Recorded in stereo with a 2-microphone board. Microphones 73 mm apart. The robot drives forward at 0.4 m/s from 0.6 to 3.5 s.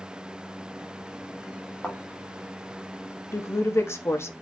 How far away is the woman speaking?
About 0.7 m.